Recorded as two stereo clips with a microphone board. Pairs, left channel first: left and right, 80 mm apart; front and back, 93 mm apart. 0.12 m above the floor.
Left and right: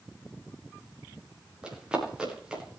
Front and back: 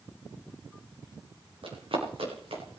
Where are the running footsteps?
170° right, 7 m.